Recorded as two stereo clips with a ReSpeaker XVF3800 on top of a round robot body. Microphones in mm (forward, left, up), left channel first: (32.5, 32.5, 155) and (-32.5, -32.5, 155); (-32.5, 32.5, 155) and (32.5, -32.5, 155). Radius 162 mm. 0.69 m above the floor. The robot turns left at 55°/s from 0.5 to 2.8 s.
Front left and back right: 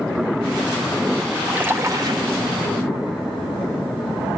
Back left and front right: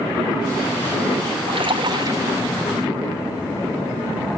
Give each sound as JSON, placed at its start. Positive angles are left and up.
{"t": 1.5, "sound": "a splash", "azimuth_deg": -55, "distance_m": 2.5}